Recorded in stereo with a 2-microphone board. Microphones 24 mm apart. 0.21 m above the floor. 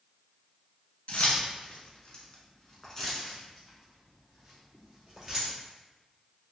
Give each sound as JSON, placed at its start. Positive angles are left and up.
{"t": 1.1, "sound": "keys jangling", "side_deg": 60, "distance_m": 1.4}